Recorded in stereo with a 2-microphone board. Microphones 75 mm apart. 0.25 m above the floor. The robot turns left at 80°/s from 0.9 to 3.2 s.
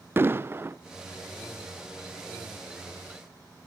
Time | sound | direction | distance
0.2 | an explosion | 30° right (ahead or behind) | 0.5 m